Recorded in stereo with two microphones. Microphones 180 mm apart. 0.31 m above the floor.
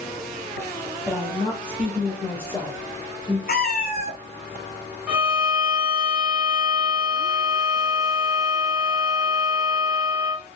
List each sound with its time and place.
1.1 s a woman speaking: 5° left (ahead or behind), 2 m; by 3.4 s 15° left (ahead or behind), 1.3 m
3.5 s a cat meowing: 60° left (ahead or behind), 0.7 m
5.1 s a violin: 10° right (ahead or behind), 1.0 m